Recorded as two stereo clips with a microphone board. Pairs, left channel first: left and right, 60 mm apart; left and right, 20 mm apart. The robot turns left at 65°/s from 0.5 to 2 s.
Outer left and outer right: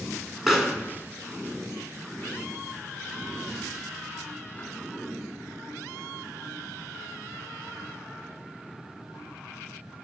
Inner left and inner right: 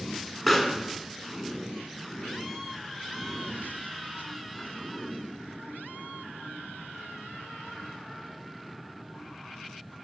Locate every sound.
0.5 s a pop: 5° right (ahead or behind), 1.8 m; by 4.7 s 25° left (ahead or behind), 1.8 m